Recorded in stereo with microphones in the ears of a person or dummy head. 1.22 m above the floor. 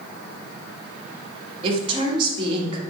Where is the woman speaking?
35° right (ahead or behind), 1.7 m.